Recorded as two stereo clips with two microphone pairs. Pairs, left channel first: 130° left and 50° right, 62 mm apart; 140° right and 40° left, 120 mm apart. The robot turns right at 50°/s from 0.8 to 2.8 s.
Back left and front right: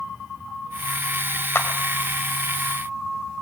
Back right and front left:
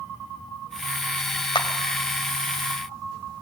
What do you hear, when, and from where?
1.6 s a clap: 175° left, 2.5 m; by 1.7 s straight behind, 2.5 m